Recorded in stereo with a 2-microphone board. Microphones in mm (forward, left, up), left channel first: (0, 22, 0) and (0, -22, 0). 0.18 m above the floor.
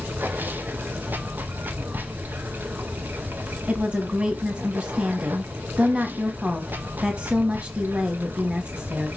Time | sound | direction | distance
0.0 | running water | 45° right (ahead or behind) | 0.8 m
3.7 | a woman speaking | 25° right (ahead or behind) | 1.3 m